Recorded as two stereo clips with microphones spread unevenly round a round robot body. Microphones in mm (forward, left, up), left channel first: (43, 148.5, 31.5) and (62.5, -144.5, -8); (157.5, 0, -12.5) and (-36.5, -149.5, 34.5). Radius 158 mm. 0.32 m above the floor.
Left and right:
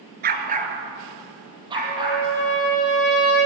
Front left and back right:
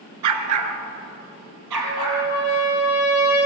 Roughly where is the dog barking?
Behind right.